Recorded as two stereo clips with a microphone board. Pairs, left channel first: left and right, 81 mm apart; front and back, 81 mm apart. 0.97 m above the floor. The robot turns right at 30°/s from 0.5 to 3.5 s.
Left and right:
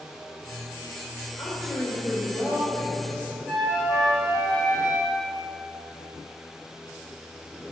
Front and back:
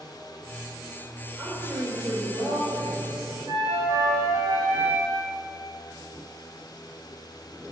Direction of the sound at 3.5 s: 170° left.